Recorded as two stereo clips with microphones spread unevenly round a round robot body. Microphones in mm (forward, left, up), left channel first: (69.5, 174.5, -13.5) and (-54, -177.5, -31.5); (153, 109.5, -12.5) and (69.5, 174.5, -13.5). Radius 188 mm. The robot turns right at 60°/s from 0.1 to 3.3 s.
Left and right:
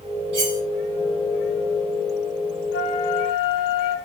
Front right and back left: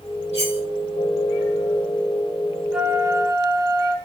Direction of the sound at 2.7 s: 55° left.